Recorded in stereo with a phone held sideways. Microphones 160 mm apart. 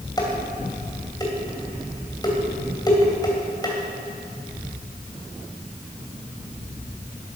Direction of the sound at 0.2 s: 25° left (ahead or behind).